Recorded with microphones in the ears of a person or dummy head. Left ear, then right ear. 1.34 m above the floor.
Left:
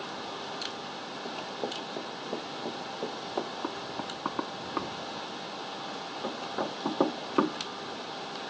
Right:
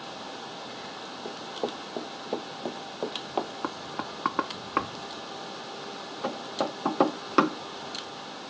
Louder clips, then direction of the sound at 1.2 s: Right 2 dB; 45° right (ahead or behind).